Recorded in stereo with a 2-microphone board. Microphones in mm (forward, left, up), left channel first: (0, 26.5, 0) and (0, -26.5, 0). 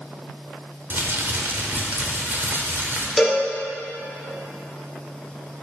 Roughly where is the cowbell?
Centre.